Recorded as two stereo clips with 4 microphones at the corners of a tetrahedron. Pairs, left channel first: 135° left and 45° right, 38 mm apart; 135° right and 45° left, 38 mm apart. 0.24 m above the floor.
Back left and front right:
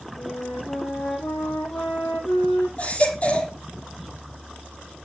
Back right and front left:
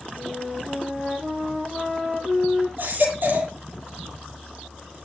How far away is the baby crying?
About 6 m.